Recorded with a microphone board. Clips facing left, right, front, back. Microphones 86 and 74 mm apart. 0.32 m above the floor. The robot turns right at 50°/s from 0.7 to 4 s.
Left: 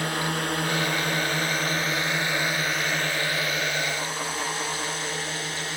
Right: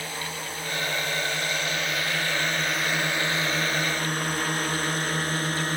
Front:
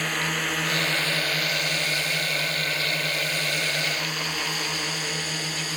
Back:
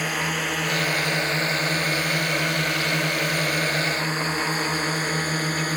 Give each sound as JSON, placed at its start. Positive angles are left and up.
{"t": 0.0, "sound": "a drone", "azimuth_deg": 95}